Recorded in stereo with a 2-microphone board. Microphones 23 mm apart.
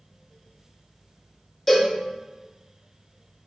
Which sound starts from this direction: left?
A cowbell, at 1.7 s.